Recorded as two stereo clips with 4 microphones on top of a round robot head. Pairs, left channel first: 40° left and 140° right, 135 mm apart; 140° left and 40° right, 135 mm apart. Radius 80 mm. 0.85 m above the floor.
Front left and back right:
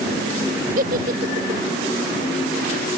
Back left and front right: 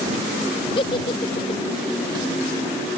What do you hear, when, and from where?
0.8 s a giggle: 165° right